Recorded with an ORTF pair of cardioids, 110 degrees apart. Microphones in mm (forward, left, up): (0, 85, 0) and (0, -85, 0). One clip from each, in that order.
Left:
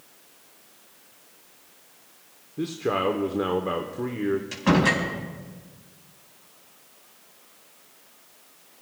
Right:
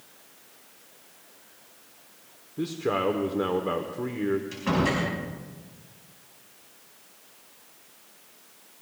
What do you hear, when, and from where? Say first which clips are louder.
2.6 s a man speaking: left 1 dB; 10° left, 1.1 m
4.5 s a door slam: left 8 dB; 40° left, 6 m